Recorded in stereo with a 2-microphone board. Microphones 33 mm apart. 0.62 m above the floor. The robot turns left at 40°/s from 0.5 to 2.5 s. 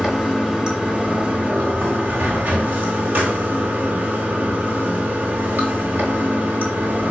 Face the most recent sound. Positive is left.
turn(degrees=-100)